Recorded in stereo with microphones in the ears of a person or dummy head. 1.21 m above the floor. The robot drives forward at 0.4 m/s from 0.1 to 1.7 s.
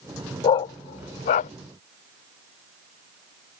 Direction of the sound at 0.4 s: 25° left (ahead or behind).